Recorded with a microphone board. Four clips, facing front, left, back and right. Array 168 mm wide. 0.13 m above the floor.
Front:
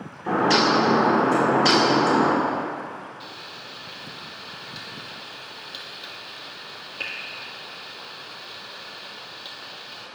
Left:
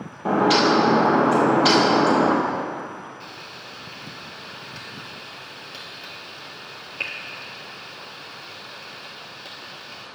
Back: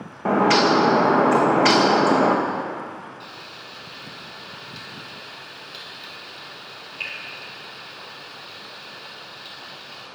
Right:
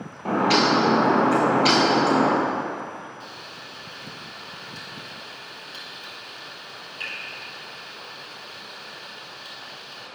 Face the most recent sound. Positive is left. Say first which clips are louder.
# left 1 dB, even
turn(degrees=60)